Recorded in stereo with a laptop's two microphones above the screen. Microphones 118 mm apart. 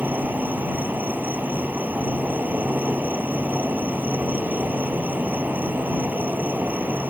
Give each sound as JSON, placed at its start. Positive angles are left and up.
{"t": 0.0, "sound": "an insect", "side_deg": -15}